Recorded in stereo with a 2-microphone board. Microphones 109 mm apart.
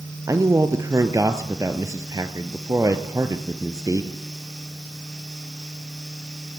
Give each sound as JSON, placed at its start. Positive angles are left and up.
{"t": 0.3, "sound": "a man speaking", "side_deg": -30, "distance_m": 2.0}